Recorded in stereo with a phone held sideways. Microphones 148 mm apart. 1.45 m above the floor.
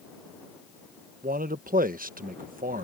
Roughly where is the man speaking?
Right.